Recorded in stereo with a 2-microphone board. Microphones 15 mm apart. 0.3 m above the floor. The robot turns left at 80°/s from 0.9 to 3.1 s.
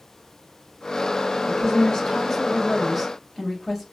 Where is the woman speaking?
120° left, 1.2 m; by 3.8 s 10° right, 1.2 m.